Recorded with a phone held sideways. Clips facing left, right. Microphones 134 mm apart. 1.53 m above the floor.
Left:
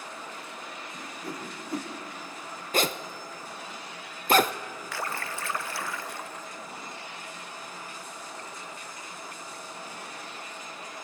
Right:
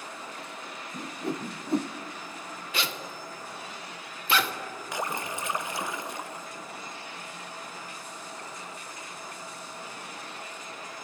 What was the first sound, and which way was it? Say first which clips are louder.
A whoosh: right 7 dB; 25° right (ahead or behind).